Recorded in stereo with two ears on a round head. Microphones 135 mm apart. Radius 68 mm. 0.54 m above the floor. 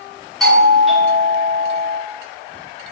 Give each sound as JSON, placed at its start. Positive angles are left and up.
{"t": 0.4, "sound": "a doorbell", "side_deg": 0, "distance_m": 1.7}